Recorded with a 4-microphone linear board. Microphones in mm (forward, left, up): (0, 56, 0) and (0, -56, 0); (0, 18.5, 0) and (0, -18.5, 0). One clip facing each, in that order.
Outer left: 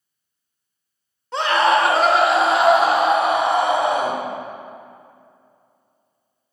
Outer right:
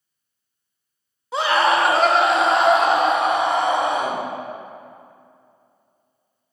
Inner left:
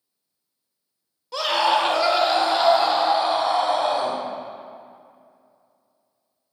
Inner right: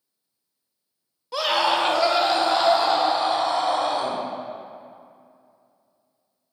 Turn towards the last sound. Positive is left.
turn(degrees=10)  # may be behind; listen again after turning